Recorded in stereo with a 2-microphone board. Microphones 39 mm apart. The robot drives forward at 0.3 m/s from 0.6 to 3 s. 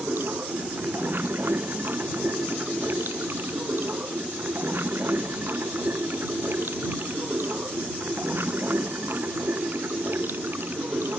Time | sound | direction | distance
0.0 | running water | 60° right (ahead or behind) | ?